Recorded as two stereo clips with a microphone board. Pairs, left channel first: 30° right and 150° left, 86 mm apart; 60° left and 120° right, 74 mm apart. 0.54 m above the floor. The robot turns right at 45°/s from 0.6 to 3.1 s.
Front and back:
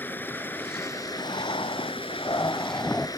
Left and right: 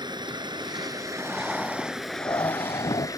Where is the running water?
95° right; by 3.2 s 15° left.